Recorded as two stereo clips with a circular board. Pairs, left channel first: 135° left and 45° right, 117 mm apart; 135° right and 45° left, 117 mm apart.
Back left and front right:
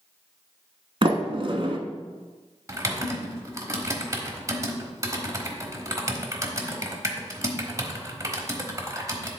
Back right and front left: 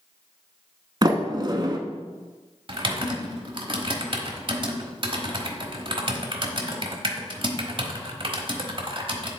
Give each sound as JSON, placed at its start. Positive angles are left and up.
{"t": 1.0, "sound": "a sliding door", "azimuth_deg": -5, "distance_m": 0.8}
{"t": 2.7, "sound": "typing on a keyboard", "azimuth_deg": 15, "distance_m": 1.1}